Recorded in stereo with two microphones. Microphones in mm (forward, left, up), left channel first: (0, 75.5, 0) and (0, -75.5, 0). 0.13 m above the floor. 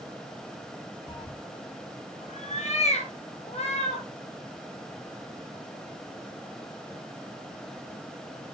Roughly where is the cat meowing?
Left.